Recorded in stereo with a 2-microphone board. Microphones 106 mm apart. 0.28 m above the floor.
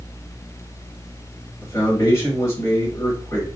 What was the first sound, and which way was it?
A man speaking, 25° left (ahead or behind).